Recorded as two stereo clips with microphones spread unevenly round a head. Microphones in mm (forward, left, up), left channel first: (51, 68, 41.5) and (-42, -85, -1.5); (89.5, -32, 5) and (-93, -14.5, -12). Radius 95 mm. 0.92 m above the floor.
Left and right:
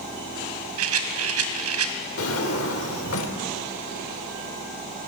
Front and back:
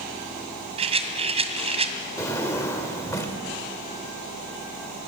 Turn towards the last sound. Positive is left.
turn(degrees=70)